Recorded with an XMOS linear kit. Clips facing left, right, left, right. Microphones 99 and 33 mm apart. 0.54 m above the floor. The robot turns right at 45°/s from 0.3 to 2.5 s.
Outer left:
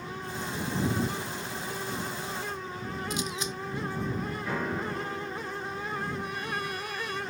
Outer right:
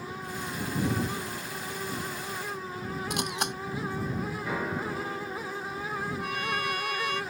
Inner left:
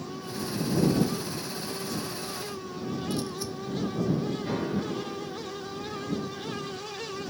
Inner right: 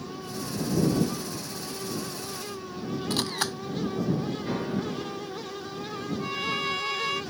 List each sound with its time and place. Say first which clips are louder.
3.1 s a camera shutter: outer right 3 dB, inner right 3 dB; 65° right (ahead or behind)
4.4 s a piano: outer left 1 dB, even; 5° right (ahead or behind)
6.2 s a violin: outer right 3 dB, inner right 6 dB; 75° right (ahead or behind)